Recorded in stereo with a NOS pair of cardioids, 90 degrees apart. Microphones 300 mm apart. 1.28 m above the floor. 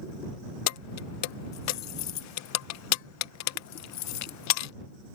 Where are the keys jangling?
70° left.